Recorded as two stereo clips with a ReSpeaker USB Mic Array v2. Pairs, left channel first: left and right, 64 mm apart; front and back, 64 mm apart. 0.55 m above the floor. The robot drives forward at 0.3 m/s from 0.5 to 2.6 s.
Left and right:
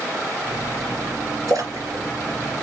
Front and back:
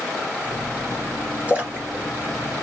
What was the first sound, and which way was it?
A splash, 115° right.